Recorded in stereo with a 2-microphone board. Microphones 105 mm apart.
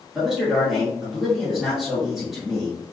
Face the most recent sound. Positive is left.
turn(degrees=-5)  # may be behind; listen again after turning